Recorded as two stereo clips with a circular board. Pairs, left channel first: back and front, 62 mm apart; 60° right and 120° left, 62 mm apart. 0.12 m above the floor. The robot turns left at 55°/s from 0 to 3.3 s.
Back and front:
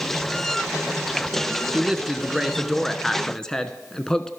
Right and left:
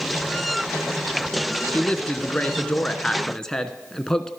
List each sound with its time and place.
1.7 s a man speaking: 40° right, 1.1 m; by 4.3 s 125° right, 1.1 m